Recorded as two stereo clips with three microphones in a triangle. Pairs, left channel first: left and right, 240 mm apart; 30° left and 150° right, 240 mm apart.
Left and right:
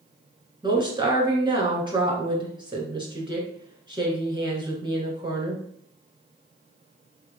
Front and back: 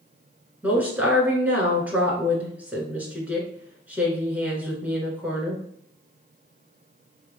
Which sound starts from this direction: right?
A woman speaking, at 0.6 s.